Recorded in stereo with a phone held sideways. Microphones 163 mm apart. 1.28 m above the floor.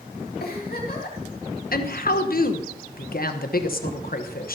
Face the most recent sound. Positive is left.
turn(degrees=65)  # may be behind; listen again after turning